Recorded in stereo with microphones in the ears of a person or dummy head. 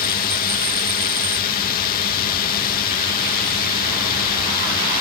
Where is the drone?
40° left (ahead or behind).